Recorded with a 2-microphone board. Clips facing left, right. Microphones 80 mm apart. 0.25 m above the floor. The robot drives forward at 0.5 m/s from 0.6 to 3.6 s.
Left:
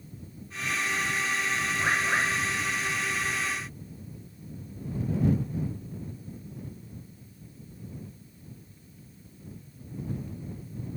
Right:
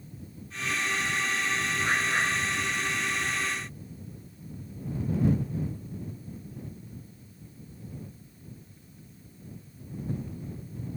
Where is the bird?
55° left (ahead or behind), 5.5 m.